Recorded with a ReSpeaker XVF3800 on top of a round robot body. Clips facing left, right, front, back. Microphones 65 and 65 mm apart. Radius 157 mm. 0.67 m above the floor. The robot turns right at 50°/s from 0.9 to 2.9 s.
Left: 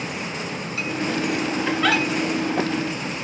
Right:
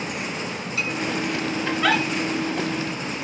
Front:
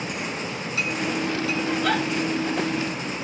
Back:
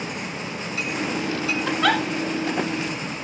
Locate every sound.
1.7 s a giggle: 170° left, 1.4 m; by 2.0 s 170° right, 1.4 m